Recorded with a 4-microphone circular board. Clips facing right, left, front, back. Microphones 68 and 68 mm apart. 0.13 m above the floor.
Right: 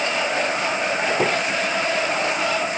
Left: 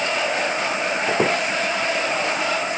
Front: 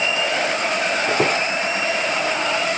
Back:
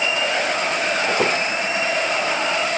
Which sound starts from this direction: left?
A squeak, at 1.1 s.